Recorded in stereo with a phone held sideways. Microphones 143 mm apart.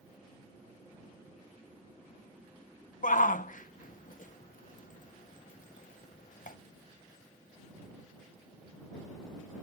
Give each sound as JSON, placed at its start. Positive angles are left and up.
{"t": 3.0, "sound": "a shout", "side_deg": 70}